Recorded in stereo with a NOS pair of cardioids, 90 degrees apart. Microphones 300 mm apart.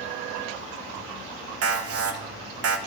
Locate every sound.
1.6 s an alarm: 50° right, 0.7 m